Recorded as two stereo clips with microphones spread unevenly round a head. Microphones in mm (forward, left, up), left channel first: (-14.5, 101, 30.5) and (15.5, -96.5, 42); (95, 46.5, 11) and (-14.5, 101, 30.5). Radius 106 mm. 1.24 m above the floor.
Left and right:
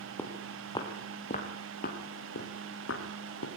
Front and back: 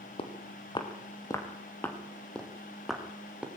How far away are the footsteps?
About 2.5 m.